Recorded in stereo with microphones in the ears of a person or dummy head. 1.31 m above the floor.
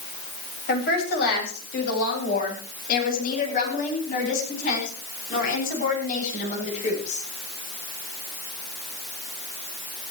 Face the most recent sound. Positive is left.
turn(degrees=45)  # may be behind; listen again after turning